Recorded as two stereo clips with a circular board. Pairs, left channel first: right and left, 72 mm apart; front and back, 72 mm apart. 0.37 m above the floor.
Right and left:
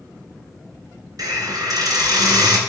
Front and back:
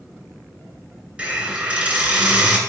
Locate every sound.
1.2 s a hiss: 110° left, 2.5 m